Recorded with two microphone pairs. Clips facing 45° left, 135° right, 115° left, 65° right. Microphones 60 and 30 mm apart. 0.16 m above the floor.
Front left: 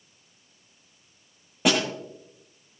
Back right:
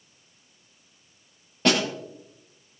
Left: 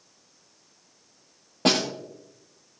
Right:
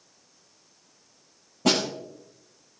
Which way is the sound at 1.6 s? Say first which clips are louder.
Back right 1 dB, left 1 dB; 125° left.